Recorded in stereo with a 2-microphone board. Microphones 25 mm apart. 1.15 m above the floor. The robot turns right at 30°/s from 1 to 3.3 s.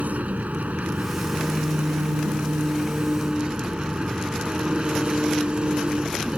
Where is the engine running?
110° right; by 6.4 s 40° right.